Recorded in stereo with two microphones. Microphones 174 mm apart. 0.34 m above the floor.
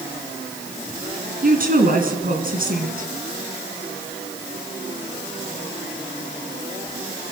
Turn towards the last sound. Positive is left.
turn(degrees=-55)  # may be behind; listen again after turning